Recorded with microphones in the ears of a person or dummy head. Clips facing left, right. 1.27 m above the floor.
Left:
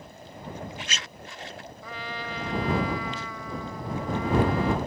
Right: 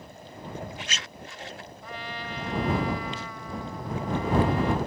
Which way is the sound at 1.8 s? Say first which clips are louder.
Left 1 dB; 65° left (ahead or behind).